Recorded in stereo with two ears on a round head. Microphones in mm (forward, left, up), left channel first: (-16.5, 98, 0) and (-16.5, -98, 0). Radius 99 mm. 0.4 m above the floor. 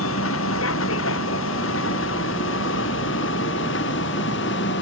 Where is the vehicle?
65° left (ahead or behind); by 4.8 s 55° left (ahead or behind).